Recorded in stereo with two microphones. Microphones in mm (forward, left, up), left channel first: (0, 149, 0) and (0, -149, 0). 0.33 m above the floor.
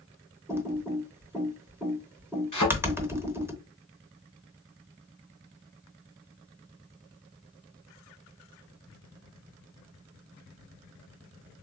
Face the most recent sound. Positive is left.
turn(degrees=80)